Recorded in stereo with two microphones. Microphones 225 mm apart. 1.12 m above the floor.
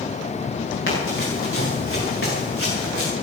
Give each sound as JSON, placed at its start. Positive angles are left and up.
{"t": 0.9, "sound": "running footsteps", "side_deg": 60, "distance_m": 10.0}